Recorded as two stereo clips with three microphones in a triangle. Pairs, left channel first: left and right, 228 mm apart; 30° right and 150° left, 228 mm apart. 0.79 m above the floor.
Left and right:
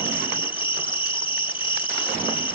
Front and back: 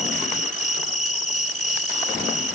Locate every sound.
0.0 s an insect: 25° left